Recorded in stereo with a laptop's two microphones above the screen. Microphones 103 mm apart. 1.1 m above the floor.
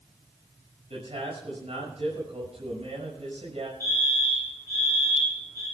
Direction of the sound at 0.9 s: 80° right.